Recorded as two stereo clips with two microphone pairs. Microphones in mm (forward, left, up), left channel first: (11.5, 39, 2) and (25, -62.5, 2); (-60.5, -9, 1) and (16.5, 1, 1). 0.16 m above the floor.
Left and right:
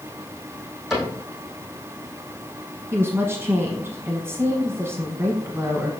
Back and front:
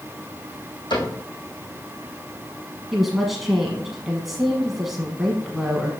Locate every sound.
0.9 s a cupboard door: 170° right, 4 m
2.9 s a woman speaking: 80° right, 1.1 m